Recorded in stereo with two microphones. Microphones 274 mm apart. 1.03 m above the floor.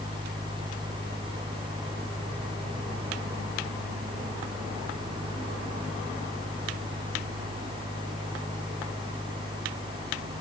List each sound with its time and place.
Only background noise.